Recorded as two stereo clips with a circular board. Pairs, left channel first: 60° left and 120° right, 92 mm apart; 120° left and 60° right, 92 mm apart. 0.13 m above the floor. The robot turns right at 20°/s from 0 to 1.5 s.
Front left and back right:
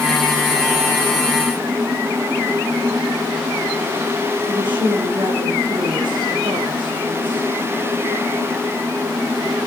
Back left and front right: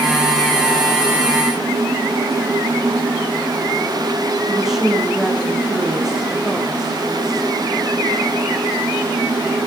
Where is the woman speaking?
145° right, 7 m.